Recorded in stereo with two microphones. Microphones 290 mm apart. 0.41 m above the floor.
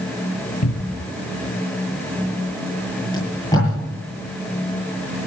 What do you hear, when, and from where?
0.6 s a cupboard door: 70° left (ahead or behind), 1.5 m
3.1 s tape being pulled: 15° left (ahead or behind), 9.5 m